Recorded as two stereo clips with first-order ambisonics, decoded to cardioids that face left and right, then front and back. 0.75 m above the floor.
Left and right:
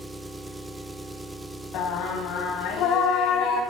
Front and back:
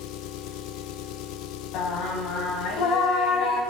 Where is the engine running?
5° right, 1.1 m.